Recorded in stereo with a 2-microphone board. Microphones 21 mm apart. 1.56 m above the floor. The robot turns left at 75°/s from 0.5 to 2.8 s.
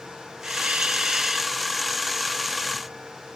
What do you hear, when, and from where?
0.4 s a hiss: 85° right; by 1.6 s 165° right